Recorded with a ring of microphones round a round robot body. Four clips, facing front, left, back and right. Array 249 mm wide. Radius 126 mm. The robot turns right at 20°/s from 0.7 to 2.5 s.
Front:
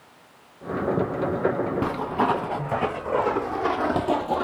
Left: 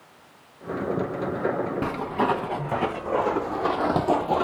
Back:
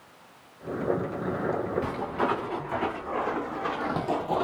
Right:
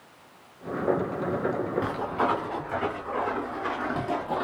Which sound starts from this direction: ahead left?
Footsteps, at 1.8 s.